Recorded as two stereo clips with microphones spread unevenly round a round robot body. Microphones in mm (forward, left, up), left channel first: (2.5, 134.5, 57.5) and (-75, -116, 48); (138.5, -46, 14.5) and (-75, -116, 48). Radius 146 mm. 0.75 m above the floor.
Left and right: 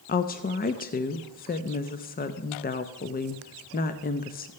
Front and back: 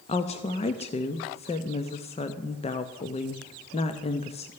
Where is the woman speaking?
40° left, 0.6 m.